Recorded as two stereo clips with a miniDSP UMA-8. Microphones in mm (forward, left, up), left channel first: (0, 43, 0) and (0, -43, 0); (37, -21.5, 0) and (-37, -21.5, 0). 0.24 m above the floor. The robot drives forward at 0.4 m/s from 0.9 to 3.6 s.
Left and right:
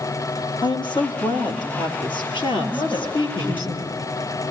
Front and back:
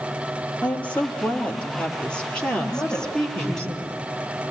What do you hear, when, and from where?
0.6 s a woman speaking: 70° left, 5.5 m; by 3.7 s 80° left, 5 m
2.7 s a woman speaking: 60° left, 4.5 m; by 4.5 s 65° left, 4 m